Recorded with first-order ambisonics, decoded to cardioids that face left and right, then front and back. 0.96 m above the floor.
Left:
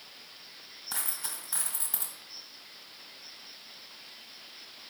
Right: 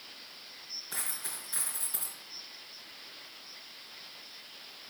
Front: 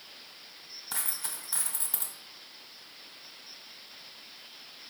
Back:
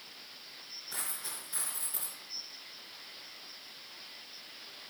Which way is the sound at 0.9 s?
50° left.